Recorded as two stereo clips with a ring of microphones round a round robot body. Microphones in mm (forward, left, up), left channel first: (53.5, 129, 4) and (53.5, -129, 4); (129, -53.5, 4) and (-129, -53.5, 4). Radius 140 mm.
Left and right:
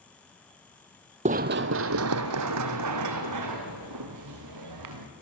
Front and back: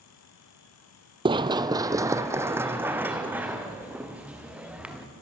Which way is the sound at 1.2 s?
125° right.